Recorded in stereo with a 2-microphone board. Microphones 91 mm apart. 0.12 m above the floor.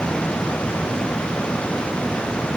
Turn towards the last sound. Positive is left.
No sound to turn to.